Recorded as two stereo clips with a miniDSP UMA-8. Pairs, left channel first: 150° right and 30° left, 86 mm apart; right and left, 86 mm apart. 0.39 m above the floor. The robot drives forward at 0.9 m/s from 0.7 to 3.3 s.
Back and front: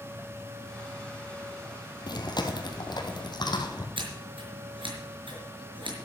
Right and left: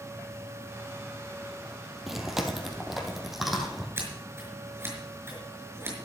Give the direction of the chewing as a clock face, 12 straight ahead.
6 o'clock.